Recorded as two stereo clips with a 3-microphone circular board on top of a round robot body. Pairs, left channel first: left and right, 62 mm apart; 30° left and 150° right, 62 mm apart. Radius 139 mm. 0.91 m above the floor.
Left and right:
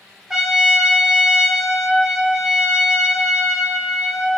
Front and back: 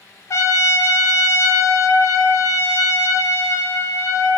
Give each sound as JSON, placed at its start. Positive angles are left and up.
{"t": 0.3, "sound": "a trumpet", "azimuth_deg": -10, "distance_m": 0.6}